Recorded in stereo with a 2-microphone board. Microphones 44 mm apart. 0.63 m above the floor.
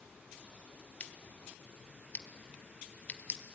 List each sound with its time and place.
1.0 s scissors: 30° left (ahead or behind), 1.4 m